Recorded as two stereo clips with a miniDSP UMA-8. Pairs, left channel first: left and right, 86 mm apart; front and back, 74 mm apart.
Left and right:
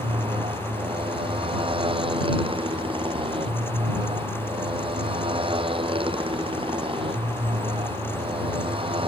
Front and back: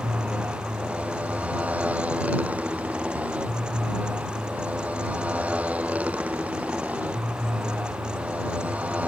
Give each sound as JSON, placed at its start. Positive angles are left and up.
{"t": 0.0, "sound": "a motorcycle", "azimuth_deg": -105}